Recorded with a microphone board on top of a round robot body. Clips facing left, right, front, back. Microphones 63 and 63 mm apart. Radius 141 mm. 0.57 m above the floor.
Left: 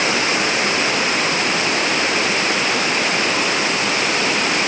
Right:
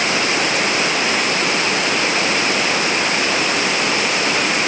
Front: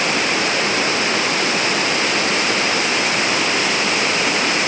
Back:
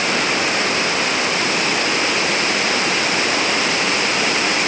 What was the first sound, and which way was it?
Only background noise.